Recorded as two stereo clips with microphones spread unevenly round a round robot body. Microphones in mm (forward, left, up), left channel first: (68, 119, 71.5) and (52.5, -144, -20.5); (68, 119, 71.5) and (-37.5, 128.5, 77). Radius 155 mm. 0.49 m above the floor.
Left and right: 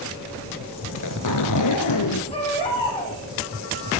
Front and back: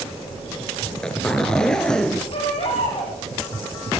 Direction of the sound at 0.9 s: 80° left.